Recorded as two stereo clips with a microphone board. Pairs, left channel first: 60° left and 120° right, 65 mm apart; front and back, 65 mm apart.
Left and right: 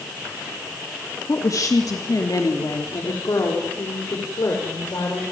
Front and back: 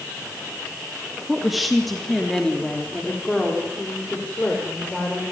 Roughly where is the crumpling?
No crumpling in this recording.